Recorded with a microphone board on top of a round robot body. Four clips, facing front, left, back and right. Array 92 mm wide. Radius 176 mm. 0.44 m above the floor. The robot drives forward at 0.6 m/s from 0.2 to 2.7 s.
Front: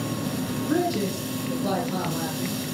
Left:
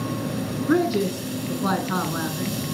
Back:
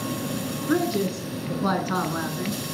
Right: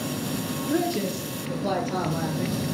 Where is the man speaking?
120° left, 5.5 m; by 2.6 s 130° left, 6 m.